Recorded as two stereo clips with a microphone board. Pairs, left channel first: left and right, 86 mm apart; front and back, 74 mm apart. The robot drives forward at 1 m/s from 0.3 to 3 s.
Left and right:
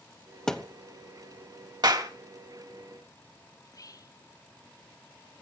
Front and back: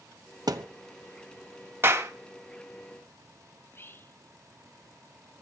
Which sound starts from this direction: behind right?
A clap, at 1.8 s.